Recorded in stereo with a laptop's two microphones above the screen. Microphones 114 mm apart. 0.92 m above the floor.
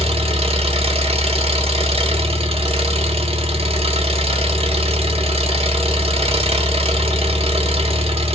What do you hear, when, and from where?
0.0 s an engine running: 60° right (ahead or behind), 1.3 m